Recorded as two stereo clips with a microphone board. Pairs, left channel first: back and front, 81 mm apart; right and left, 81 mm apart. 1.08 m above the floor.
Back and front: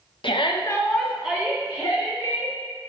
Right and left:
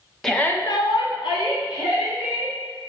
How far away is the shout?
About 0.7 m.